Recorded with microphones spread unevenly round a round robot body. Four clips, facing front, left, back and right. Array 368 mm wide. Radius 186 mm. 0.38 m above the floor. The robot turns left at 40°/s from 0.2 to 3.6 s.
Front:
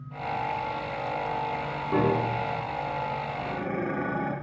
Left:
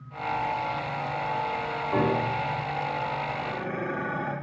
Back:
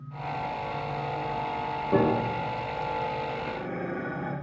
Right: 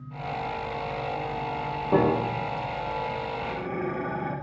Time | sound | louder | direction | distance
1.9 | a piano | right 3 dB, even | 115° right | 1.5 m
3.4 | dishes clattering | right 1 dB, front 2 dB | 5° right | 3 m